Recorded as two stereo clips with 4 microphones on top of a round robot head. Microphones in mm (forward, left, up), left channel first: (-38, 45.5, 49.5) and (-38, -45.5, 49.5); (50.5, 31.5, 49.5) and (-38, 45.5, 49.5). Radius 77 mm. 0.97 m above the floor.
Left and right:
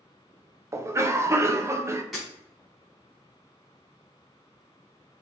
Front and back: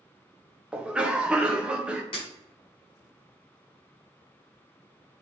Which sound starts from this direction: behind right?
A cough, at 0.7 s.